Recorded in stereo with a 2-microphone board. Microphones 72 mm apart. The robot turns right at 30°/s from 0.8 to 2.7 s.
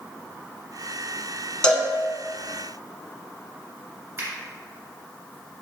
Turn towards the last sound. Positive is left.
turn(degrees=-35)  # may be behind; listen again after turning